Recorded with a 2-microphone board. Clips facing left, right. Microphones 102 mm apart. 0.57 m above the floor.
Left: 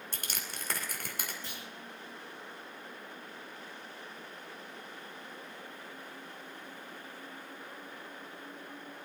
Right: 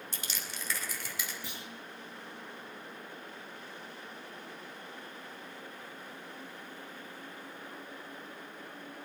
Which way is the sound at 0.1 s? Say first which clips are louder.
Even; 50° left (ahead or behind).